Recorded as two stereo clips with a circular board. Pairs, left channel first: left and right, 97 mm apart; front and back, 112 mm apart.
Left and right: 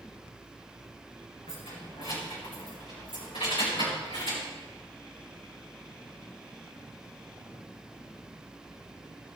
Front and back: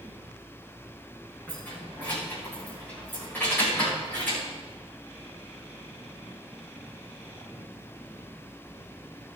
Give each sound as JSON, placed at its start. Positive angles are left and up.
{"t": 1.5, "sound": "keys jangling", "azimuth_deg": 75, "distance_m": 6.5}